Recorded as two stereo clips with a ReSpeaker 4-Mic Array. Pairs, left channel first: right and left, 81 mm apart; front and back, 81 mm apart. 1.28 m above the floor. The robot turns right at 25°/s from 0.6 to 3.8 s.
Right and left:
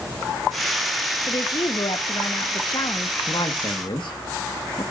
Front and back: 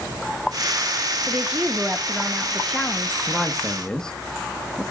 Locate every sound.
1.3 s a woman speaking: 115° right, 1.0 m; by 3.2 s 65° right, 1.0 m
3.3 s a man speaking: 95° right, 1.5 m; by 4.8 s 80° right, 1.5 m